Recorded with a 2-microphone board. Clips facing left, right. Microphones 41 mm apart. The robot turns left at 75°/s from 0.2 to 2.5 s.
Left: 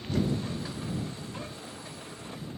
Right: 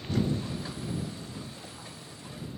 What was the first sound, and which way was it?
Only background noise.